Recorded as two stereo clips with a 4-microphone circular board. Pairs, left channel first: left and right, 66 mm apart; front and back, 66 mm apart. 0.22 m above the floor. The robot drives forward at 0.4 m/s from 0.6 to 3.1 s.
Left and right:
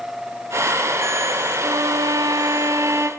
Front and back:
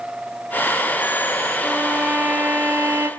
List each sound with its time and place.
1.6 s a violin: 100° right, 0.6 m; by 3.1 s 140° right, 0.9 m